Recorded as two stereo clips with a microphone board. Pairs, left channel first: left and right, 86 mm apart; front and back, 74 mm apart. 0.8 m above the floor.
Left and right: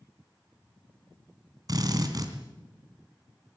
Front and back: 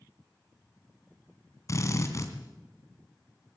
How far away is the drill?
About 3 m.